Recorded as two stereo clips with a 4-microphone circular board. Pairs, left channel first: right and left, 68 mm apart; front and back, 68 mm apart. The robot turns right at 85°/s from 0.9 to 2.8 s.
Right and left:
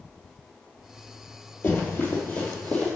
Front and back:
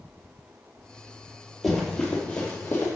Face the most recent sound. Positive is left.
turn(degrees=-35)